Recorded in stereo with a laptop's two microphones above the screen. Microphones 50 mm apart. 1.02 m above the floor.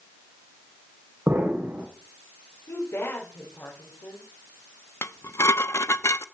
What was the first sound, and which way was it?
An explosion, 65° right (ahead or behind).